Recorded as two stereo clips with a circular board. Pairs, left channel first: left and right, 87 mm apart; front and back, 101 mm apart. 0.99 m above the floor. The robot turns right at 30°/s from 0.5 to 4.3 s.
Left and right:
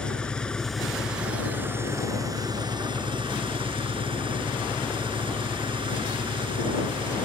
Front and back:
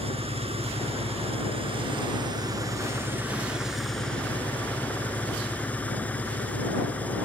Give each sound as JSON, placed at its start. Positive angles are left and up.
{"t": 0.0, "sound": "an engine running", "azimuth_deg": 170}